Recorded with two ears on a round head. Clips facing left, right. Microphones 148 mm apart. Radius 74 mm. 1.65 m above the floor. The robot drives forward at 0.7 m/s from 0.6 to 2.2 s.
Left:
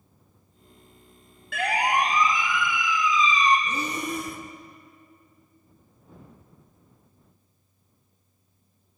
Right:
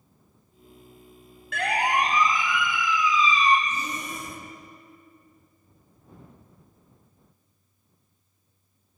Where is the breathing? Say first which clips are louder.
Left 3 dB; 55° left (ahead or behind), 1.9 m.